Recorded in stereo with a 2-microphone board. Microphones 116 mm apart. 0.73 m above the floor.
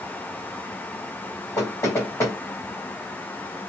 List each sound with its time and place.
1.6 s knocking: 30° left (ahead or behind), 2.5 m